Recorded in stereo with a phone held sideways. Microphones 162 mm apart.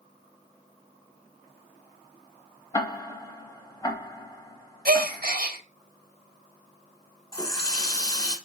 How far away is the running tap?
About 1.0 m.